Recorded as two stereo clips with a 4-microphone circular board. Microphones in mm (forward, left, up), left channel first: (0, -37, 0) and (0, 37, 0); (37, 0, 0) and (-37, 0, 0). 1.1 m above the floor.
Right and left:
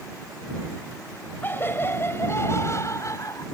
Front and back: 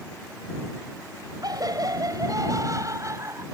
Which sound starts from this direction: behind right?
Laughter, at 1.4 s.